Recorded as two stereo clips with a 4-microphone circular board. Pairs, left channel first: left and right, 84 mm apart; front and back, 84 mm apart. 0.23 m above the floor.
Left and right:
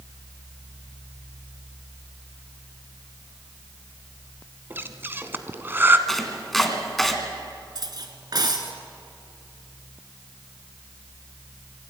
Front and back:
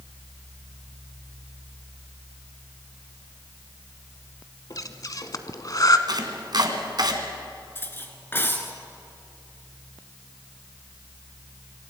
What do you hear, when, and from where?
4.7 s breathing: 30° right, 1.1 m
6.1 s chopping: 175° left, 2 m
7.8 s cutlery clinking: 60° right, 2.0 m